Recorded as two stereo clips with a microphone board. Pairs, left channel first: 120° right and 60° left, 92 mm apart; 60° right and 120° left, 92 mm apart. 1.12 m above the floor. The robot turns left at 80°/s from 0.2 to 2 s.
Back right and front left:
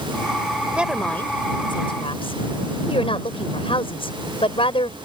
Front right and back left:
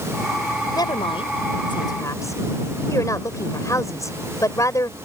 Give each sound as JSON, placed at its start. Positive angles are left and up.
{"t": 0.8, "sound": "a woman speaking", "azimuth_deg": -15}